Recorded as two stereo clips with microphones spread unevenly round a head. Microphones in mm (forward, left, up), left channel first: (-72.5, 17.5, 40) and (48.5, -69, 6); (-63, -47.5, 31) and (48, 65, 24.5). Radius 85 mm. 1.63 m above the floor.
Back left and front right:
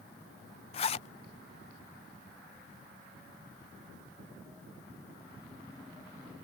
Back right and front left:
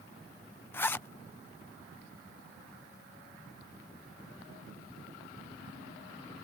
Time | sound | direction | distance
0.7 | a zipper | 155° left | ?